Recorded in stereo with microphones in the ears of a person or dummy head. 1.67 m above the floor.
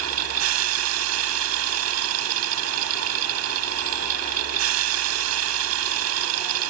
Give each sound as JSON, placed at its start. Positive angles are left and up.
{"t": 0.0, "sound": "a machine running", "side_deg": -80}